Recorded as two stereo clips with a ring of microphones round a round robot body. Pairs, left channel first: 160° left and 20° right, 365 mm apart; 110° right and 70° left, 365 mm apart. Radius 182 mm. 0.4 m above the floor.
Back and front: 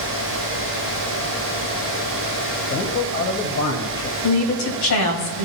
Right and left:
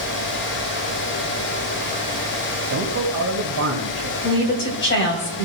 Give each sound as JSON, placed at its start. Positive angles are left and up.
{"t": 2.7, "sound": "a man speaking", "azimuth_deg": 105, "distance_m": 2.0}
{"t": 4.2, "sound": "a woman speaking", "azimuth_deg": -165, "distance_m": 2.0}